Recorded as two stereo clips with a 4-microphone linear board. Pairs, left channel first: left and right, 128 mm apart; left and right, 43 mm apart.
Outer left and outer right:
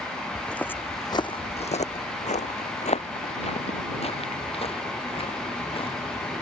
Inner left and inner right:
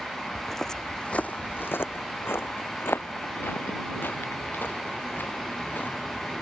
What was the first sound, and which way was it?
Footsteps, 5° left (ahead or behind).